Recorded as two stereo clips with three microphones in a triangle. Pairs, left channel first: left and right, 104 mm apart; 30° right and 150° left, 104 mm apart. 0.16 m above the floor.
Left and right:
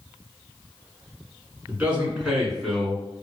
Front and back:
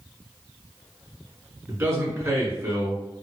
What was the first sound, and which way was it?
A man speaking, 160° right.